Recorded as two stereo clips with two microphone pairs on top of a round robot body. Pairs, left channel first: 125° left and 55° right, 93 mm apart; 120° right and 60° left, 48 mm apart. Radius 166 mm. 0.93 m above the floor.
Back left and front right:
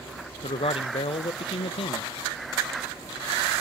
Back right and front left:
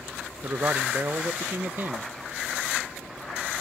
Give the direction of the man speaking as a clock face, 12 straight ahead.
8 o'clock.